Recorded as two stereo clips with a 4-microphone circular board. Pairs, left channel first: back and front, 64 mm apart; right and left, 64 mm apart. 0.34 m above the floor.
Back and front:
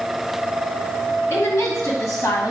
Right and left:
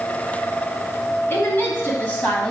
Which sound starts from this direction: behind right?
A woman speaking, at 1.3 s.